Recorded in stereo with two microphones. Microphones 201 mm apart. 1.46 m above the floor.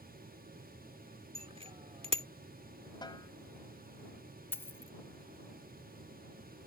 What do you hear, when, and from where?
1.4 s a bicycle bell: 30° right (ahead or behind)
3.0 s a snare drum: 20° left (ahead or behind)
4.5 s a dropped coin: 10° left (ahead or behind)